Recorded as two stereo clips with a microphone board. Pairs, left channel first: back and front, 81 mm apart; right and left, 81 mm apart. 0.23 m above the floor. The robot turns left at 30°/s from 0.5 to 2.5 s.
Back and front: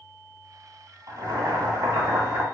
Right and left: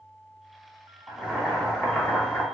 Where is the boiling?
15° left, 1.3 m; by 2.4 s 25° right, 1.3 m.